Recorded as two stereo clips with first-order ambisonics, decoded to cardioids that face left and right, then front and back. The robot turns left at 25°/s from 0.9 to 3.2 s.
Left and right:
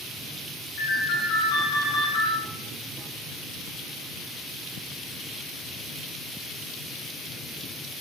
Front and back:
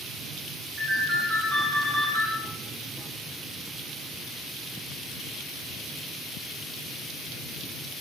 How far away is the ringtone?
About 1.3 m.